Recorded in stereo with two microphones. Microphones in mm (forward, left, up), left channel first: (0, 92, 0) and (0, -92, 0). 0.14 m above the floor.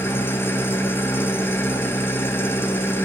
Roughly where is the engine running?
Centre.